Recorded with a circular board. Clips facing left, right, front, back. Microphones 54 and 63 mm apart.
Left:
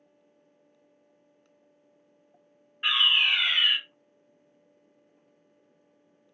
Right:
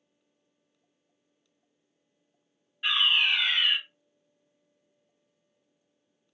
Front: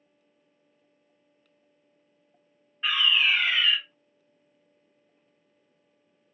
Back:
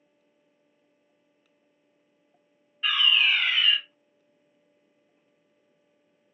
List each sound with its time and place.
2.8 s a fire alarm: 55° left, 1.5 m